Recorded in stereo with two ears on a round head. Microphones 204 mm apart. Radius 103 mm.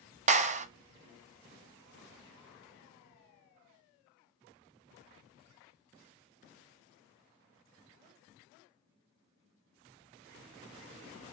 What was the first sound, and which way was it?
A clap, 35° right (ahead or behind).